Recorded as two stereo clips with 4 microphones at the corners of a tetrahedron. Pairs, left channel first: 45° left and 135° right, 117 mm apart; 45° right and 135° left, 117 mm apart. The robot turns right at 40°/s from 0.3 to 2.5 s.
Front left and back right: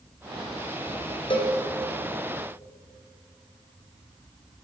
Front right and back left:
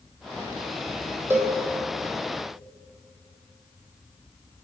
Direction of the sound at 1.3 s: 70° left.